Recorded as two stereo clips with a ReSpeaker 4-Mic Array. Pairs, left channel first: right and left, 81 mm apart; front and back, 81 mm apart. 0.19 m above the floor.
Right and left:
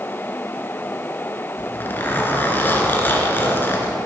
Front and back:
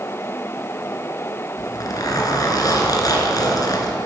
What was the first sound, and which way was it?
A zipper, 30° right.